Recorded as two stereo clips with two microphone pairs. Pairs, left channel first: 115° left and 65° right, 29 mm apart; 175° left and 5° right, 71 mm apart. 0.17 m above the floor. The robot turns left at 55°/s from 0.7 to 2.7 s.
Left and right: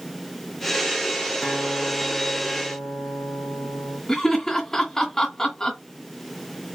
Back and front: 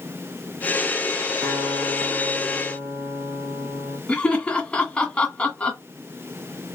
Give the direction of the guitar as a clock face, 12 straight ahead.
11 o'clock.